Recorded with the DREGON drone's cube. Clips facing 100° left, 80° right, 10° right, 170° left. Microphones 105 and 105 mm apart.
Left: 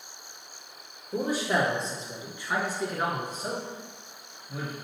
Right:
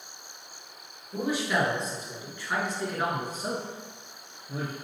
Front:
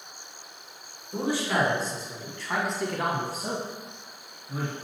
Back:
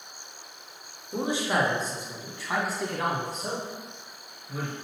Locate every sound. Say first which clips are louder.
1.1 s a man speaking: left 1 dB, even; 110° left, 1.5 m; by 4.7 s 70° right, 1.4 m